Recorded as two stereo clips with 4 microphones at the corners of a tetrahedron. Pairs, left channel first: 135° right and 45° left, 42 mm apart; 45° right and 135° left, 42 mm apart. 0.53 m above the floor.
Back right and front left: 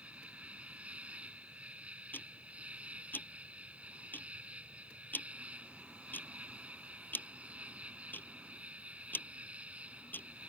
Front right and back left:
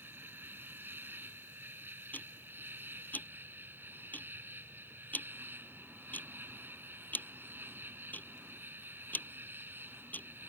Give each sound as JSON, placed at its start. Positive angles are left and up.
{"t": 0.0, "sound": "an insect", "azimuth_deg": 100}
{"t": 2.1, "sound": "ticking", "azimuth_deg": -95}